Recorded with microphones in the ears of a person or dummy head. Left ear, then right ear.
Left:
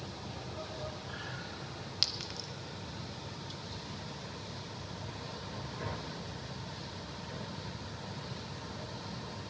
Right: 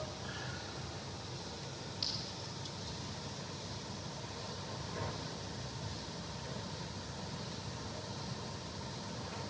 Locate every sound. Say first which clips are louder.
2.0 s a clink: left 6 dB; 55° left (ahead or behind), 0.8 m